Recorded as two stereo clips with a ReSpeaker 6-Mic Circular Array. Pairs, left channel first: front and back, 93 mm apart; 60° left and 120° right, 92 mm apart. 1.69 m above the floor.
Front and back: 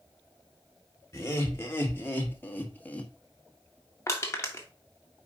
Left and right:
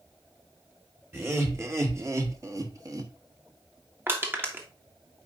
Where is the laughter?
60° right, 2 m; by 3.1 s 75° right, 1.1 m.